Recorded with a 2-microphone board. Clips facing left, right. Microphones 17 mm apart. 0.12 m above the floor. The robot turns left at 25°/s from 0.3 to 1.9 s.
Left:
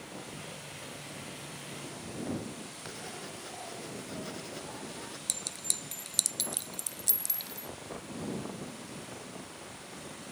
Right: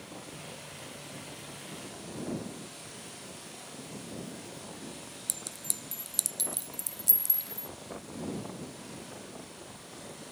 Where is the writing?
55° left (ahead or behind).